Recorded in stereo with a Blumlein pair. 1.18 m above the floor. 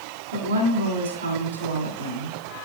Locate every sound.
0.3 s a woman speaking: 65° right, 2.5 m